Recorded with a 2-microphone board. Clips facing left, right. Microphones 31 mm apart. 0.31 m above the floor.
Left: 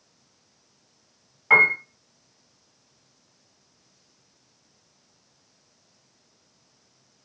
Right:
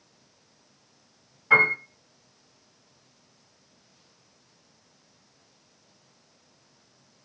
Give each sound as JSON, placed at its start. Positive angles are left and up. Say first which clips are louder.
{"t": 1.5, "sound": "a piano", "louder": "left 3 dB", "side_deg": 45, "distance_m": 1.8}